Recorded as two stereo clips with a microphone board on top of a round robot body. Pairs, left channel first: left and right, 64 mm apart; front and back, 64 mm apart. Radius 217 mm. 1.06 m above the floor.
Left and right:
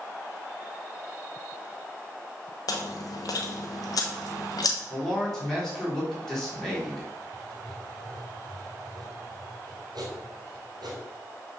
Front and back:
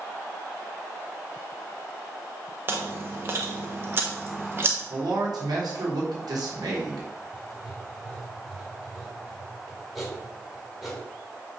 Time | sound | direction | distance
2.7 | chewing | 125° left | 0.9 m
4.9 | a man speaking | 175° left | 3.5 m
7.3 | writing | 90° right | 1.9 m